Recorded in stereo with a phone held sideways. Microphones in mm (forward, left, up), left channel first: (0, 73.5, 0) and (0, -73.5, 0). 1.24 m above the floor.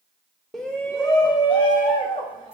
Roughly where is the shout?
Centre.